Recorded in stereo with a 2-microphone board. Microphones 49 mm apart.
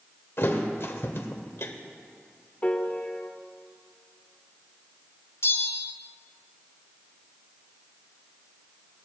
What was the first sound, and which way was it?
A thud, 60° left (ahead or behind).